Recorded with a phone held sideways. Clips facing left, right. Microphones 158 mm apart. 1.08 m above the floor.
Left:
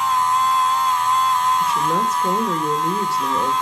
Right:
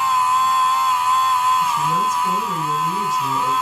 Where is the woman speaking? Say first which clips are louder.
Even; 70° left (ahead or behind), 1.5 m.